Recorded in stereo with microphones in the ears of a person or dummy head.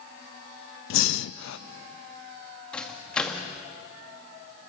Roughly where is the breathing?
Left.